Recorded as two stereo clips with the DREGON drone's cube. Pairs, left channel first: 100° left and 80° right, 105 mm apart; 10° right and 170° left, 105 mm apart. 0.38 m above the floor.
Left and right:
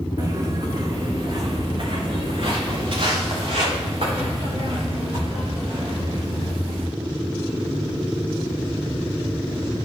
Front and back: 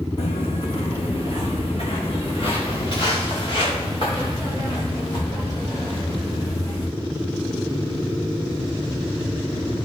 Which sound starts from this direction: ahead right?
Footsteps, at 0.2 s.